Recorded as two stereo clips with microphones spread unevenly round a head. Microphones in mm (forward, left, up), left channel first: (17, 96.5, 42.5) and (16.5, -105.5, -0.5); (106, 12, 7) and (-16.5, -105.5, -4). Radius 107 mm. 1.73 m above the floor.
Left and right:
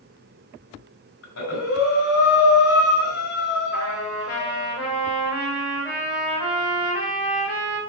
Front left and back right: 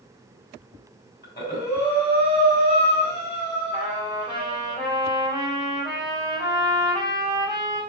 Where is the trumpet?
120° left, 3.5 m.